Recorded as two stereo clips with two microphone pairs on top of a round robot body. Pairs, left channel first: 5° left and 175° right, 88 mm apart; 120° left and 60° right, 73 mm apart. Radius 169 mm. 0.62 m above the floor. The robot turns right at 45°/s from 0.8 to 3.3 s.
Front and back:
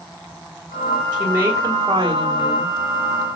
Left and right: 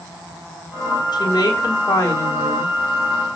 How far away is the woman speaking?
About 3.5 m.